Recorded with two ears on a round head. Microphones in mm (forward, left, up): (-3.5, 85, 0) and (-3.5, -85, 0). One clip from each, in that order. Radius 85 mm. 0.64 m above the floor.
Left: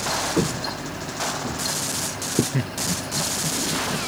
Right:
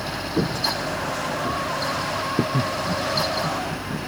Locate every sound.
0.4 s footsteps: 85° left; by 2.4 s 80° left
2.5 s laughter: 20° left (ahead or behind)